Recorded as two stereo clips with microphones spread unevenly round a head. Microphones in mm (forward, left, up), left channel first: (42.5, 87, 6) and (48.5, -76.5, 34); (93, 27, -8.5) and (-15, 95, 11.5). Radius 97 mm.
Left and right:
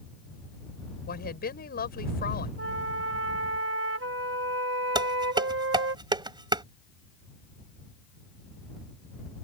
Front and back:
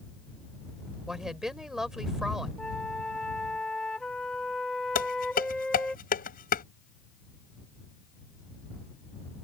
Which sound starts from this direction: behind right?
A flute, at 2.6 s.